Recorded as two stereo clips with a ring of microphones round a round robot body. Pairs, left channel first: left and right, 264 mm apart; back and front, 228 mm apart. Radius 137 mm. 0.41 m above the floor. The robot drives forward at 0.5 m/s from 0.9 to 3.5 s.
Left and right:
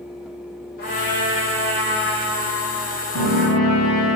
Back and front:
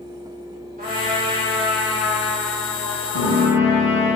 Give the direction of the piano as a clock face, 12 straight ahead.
7 o'clock.